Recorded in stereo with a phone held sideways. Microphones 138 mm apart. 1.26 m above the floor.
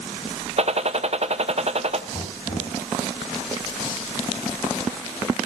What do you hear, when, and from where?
0.6 s a gunshot: 50° right (ahead or behind), 0.8 m
2.1 s knocking: 45° left (ahead or behind), 6 m